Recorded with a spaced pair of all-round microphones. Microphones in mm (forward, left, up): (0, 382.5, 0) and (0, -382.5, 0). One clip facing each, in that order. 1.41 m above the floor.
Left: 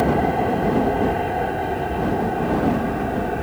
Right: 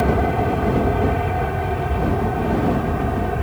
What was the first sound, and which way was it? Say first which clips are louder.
An aircraft: even; 40° right (ahead or behind).